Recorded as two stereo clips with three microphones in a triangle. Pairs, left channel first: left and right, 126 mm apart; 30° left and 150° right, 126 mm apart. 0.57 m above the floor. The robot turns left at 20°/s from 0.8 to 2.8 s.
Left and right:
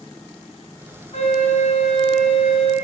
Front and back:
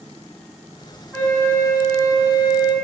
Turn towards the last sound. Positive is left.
turn(degrees=65)